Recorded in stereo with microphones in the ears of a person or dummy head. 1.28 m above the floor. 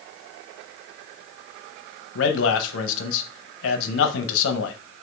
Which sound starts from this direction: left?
A man speaking, at 2.1 s.